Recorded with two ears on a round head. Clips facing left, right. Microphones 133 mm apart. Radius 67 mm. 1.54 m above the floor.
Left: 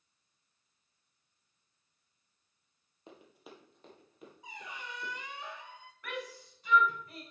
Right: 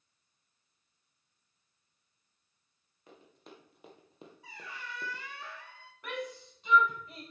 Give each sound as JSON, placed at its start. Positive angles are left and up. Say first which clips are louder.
{"t": 3.1, "sound": "running footsteps", "louder": "left 1 dB", "side_deg": 20, "distance_m": 1.8}
{"t": 4.4, "sound": "a squeak", "louder": "left 1 dB", "side_deg": 15, "distance_m": 0.5}
{"t": 6.0, "sound": "a shout", "louder": "right 3 dB", "side_deg": -20, "distance_m": 4.0}